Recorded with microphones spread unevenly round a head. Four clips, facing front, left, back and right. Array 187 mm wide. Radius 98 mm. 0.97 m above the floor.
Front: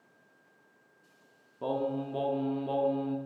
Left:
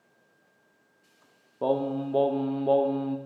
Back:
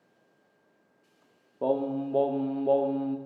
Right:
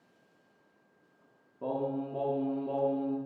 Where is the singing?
130° left, 0.6 m.